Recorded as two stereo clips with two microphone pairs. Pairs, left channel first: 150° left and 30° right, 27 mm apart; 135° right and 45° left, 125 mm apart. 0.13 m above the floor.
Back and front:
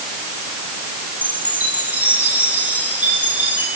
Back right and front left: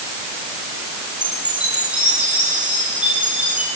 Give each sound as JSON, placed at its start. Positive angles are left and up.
{"t": 1.2, "sound": "a chime", "azimuth_deg": -35, "distance_m": 7.5}